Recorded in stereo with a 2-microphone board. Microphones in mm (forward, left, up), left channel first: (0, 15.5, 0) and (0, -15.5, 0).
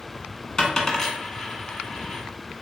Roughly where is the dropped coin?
Centre.